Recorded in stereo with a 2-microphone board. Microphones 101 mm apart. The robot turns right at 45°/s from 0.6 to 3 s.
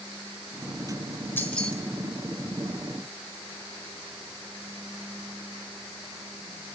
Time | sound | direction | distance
1.4 | keys jangling | 20° left (ahead or behind) | 1.4 m